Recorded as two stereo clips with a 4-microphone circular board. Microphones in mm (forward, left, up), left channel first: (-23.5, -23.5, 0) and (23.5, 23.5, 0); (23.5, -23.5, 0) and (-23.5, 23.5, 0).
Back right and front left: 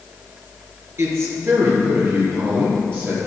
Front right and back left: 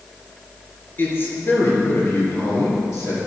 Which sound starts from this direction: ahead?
A man speaking, at 1.0 s.